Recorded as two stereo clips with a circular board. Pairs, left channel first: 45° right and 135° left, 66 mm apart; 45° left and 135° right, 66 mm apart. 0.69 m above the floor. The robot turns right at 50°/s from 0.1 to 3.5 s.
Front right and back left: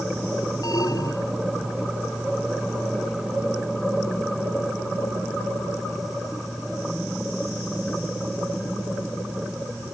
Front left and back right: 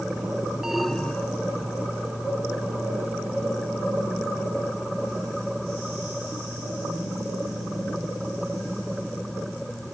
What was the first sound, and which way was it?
An alarm, 55° right.